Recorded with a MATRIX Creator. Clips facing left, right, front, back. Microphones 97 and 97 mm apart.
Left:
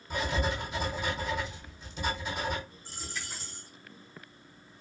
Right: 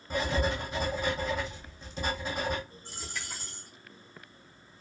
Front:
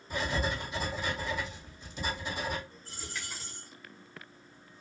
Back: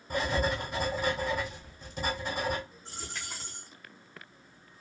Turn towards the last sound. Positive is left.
turn(degrees=-120)